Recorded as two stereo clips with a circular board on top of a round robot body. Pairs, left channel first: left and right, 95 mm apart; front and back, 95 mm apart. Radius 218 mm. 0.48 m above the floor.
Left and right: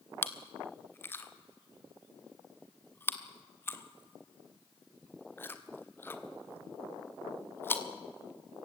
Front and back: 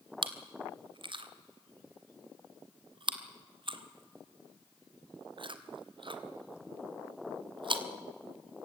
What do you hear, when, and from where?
0.2 s chewing: 155° left, 1.7 m